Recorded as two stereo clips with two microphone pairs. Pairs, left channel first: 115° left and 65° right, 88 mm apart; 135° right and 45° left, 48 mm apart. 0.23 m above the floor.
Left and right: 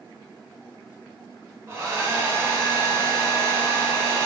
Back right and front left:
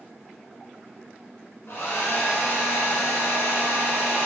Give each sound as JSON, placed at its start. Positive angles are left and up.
{"t": 1.7, "sound": "a hair dryer", "azimuth_deg": -120, "distance_m": 0.7}